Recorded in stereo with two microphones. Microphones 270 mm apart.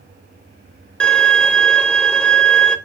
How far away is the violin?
About 0.9 m.